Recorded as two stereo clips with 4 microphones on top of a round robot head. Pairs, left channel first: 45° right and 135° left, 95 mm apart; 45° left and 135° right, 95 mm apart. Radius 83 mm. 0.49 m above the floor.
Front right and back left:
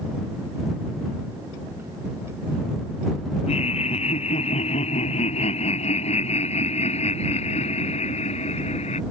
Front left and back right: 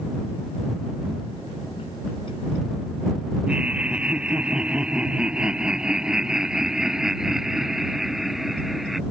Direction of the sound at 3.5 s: 55° right.